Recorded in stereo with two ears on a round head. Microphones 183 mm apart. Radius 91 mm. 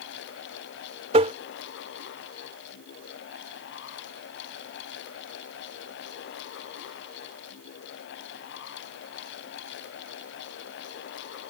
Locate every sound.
1.1 s tapping: 30° right (ahead or behind)